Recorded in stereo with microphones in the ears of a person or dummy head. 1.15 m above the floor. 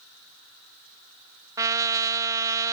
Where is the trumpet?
15° right (ahead or behind), 1.1 m.